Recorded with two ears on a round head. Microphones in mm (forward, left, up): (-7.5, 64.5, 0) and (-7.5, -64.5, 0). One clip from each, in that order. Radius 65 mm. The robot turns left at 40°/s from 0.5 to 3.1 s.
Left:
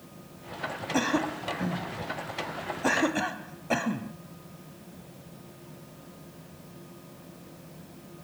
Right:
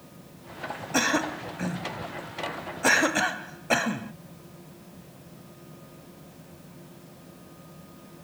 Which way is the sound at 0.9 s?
35° right (ahead or behind).